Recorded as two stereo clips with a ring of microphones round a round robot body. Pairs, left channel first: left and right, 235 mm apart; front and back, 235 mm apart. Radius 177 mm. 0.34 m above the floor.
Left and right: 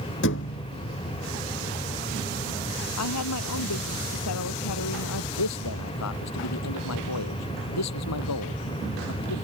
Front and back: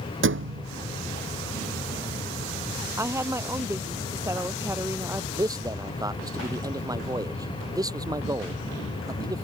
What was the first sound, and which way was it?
A thud, 145° left.